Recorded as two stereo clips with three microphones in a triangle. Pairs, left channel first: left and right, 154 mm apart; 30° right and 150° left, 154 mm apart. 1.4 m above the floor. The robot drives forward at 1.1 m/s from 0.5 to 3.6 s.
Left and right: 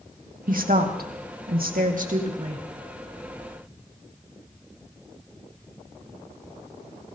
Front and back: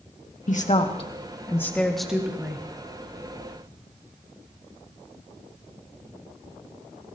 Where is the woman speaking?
65° right, 1.8 m; by 2.6 s 135° right, 2.5 m.